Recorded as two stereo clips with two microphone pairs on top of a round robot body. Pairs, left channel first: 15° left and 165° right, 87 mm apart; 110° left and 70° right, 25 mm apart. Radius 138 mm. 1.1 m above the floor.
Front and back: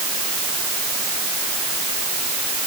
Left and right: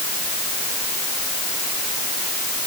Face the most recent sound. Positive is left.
No sound to turn to.